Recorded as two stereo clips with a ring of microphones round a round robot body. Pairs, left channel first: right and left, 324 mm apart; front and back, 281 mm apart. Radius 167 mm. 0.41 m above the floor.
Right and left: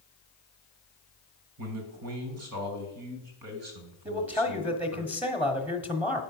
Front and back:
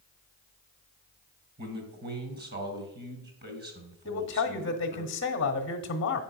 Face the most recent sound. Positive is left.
turn(degrees=5)